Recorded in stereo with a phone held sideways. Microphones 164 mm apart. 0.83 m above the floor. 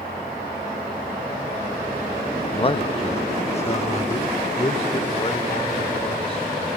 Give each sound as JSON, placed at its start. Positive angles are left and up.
{"t": 2.5, "sound": "a man speaking", "side_deg": 30, "distance_m": 0.5}